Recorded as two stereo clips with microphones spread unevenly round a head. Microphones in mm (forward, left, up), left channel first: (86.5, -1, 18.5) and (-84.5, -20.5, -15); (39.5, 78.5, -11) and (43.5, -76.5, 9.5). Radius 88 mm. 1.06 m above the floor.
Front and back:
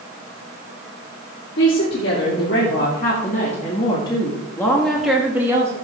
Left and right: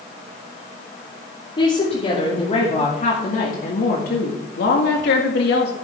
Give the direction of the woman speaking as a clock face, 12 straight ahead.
11 o'clock.